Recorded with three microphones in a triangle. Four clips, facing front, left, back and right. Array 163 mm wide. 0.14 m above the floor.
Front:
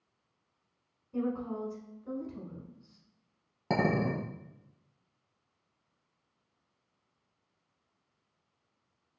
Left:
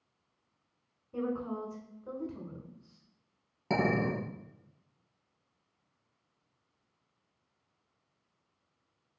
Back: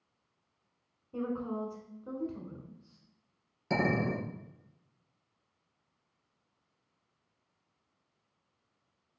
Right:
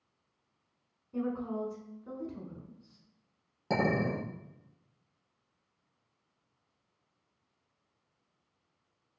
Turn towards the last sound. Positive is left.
turn(degrees=0)